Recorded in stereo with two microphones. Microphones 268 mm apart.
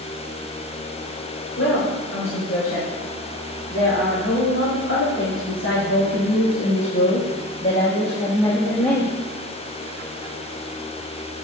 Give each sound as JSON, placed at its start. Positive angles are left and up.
{"t": 1.6, "sound": "a woman speaking", "side_deg": 75, "distance_m": 3.5}